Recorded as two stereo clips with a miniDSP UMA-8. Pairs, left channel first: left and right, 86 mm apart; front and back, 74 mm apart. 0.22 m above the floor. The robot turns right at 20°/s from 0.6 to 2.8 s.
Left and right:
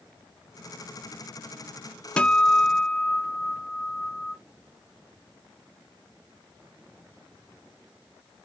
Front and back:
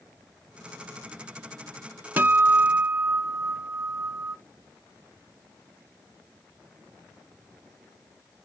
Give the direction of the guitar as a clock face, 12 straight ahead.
7 o'clock.